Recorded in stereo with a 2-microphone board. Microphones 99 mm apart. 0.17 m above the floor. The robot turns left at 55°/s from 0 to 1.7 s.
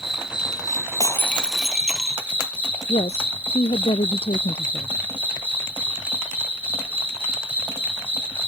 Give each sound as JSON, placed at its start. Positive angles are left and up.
{"t": 0.0, "sound": "an insect", "azimuth_deg": 80}
{"t": 1.0, "sound": "breaking glass", "azimuth_deg": 35}
{"t": 2.9, "sound": "a woman speaking", "side_deg": 75}